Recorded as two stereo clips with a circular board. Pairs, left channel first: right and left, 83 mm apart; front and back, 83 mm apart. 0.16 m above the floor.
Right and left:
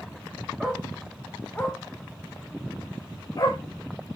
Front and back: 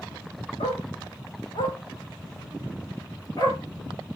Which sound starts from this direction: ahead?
A dog barking, at 0.6 s.